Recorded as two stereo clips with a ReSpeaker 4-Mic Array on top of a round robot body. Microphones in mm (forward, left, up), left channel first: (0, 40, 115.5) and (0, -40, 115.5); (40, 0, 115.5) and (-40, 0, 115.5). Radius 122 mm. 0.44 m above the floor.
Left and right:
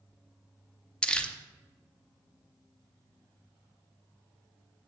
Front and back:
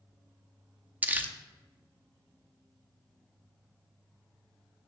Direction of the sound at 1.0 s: 150° left.